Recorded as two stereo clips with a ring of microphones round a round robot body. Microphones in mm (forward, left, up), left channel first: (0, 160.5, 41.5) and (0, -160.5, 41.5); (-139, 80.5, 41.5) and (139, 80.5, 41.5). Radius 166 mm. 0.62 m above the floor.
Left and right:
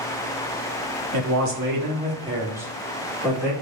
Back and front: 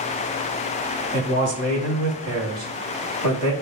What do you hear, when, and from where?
1.1 s a man speaking: 55° right, 1.0 m; by 3.5 s 10° left, 1.4 m